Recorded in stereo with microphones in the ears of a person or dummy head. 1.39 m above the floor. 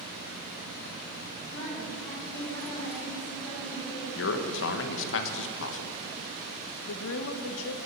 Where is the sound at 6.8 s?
75° left (ahead or behind), 1.2 m.